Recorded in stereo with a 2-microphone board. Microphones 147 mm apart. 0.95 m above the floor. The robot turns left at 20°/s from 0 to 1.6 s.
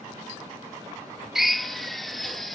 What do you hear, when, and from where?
1.4 s a drill: 5° right (ahead or behind), 0.6 m; by 2.6 s centre (ahead or behind), 0.6 m